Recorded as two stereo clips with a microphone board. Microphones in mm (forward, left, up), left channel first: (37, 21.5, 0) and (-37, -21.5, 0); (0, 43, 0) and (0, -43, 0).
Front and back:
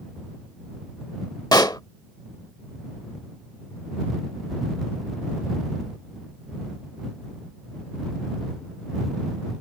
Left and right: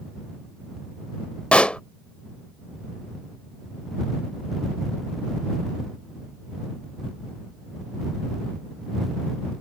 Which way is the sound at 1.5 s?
15° left.